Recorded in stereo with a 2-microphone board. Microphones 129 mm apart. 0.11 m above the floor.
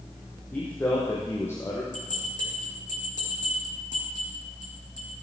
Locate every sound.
0.5 s a man speaking: 15° left (ahead or behind), 4.5 m; by 1.8 s 20° left (ahead or behind), 4 m
1.9 s a bell: 75° left (ahead or behind), 6.5 m